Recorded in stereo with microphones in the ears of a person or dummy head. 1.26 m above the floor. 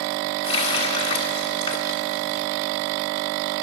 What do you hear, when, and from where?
0.4 s a running tap: 30° left (ahead or behind), 1.6 m